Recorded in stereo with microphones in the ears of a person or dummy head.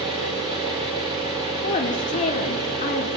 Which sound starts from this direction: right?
An engine running, at 0.0 s.